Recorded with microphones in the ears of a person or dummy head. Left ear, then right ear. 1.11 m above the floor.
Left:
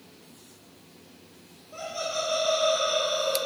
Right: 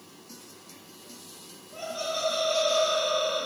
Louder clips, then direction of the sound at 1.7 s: Left 1 dB; 55° left (ahead or behind).